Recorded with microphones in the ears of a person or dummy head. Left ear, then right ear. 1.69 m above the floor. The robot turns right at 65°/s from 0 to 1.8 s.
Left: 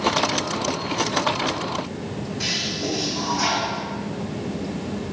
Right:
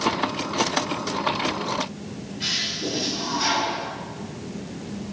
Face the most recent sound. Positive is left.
turn(degrees=50)  # may be behind; listen again after turning